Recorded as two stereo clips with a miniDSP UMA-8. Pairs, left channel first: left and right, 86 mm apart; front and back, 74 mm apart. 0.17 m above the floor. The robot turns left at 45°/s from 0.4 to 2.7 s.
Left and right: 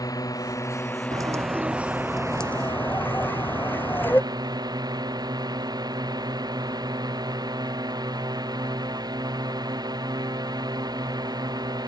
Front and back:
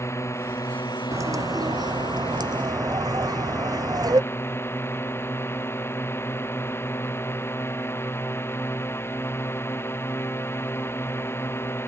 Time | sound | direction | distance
0.0 | a drone | 50° left | ?
1.1 | a bird | 130° right | ?